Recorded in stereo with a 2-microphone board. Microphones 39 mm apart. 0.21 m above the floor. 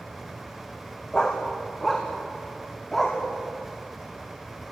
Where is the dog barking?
20° left (ahead or behind), 4.5 m; by 3.2 s 10° left (ahead or behind), 6.5 m.